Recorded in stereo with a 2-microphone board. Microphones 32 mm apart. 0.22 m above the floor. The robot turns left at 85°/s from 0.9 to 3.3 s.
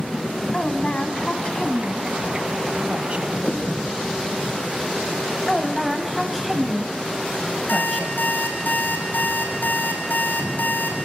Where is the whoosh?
45° left (ahead or behind), 3 m.